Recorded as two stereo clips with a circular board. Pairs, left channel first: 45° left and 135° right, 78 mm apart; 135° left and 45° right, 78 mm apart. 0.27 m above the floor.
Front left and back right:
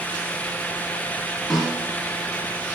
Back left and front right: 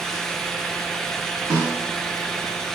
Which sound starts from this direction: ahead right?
A snare drum, at 1.5 s.